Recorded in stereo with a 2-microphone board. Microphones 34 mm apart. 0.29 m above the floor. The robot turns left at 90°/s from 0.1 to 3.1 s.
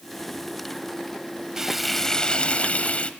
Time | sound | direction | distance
1.6 | frying | 155° right | 1.1 m